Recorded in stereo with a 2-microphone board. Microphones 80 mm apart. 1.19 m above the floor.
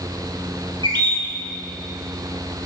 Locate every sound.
0.8 s a bird: 80° right, 4 m